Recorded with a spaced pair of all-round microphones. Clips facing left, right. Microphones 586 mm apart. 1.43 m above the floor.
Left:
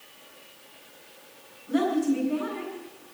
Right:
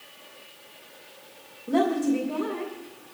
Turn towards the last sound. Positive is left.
turn(degrees=-85)